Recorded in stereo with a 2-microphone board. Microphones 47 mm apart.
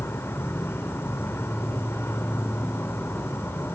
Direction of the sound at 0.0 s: 60° left (ahead or behind).